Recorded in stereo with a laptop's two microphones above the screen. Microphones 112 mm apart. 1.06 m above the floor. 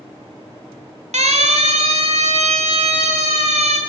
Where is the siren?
85° right, 3.5 m.